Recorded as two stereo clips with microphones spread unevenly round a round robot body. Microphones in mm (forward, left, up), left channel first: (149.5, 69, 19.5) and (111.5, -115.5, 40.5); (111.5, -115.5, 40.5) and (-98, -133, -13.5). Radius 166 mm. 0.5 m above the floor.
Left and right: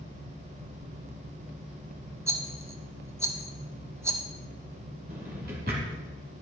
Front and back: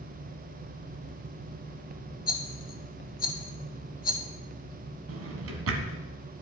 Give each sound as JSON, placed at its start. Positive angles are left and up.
{"t": 2.3, "sound": "a rattle", "azimuth_deg": -25, "distance_m": 1.3}
{"t": 5.1, "sound": "a drawer", "azimuth_deg": -165, "distance_m": 1.4}